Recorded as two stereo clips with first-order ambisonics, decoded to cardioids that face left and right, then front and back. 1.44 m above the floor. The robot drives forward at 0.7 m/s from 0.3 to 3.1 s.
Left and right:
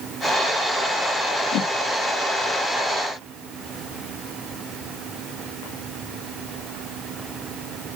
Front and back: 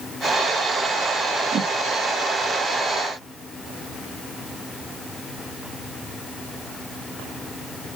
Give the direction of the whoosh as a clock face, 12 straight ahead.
8 o'clock.